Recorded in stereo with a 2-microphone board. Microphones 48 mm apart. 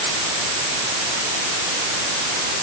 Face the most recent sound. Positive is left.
No sound to turn to.